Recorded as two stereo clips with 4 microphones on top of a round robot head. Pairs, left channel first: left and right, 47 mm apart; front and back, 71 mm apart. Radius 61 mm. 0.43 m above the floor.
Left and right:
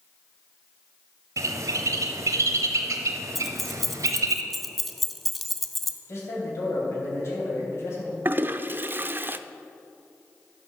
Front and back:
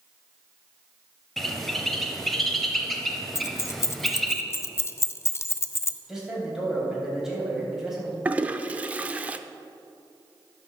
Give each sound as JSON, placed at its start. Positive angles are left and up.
{"t": 1.4, "sound": "a bird", "azimuth_deg": -90, "distance_m": 0.7}
{"t": 3.4, "sound": "keys jangling", "azimuth_deg": 0, "distance_m": 0.5}
{"t": 6.1, "sound": "a man speaking", "azimuth_deg": 95, "distance_m": 3.5}
{"t": 8.2, "sound": "a toilet flushing", "azimuth_deg": -115, "distance_m": 0.5}